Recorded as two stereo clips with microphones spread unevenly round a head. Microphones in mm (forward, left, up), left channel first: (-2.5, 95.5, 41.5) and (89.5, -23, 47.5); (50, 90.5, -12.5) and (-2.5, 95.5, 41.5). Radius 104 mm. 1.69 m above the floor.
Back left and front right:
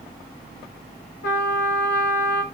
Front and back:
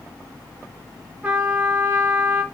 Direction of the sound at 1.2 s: 135° left.